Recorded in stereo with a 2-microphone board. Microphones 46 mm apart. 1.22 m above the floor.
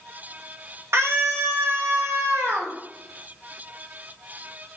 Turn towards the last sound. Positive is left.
turn(degrees=-80)